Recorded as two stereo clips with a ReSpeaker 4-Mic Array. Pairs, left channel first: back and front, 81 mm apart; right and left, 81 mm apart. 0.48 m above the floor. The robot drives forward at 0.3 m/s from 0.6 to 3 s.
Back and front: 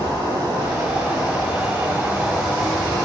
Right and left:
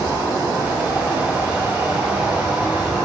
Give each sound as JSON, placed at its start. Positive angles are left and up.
{"t": 0.0, "sound": "an insect", "azimuth_deg": 40, "distance_m": 1.4}